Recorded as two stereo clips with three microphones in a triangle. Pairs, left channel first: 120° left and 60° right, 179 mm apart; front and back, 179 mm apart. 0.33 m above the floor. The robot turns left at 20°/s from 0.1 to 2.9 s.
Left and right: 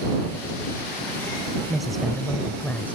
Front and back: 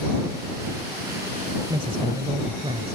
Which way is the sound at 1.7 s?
145° right.